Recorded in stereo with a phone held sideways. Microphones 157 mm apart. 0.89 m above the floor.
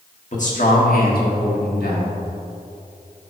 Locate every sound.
0.3 s a man speaking: 50° left (ahead or behind), 1.5 m; by 2.2 s 75° left (ahead or behind), 1.6 m